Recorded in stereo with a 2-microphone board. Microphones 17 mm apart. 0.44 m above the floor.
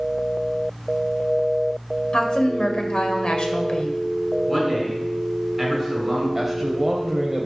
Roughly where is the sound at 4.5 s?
Centre.